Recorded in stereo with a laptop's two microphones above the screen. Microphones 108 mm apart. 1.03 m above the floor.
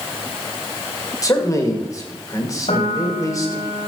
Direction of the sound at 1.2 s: 30° left (ahead or behind).